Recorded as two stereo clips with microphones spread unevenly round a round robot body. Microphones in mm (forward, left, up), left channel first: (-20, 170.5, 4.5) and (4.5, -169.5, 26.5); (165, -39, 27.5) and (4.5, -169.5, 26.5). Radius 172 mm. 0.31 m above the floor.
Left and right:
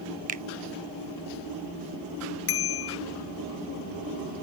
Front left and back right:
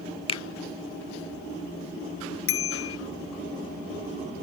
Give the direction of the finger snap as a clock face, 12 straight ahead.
1 o'clock.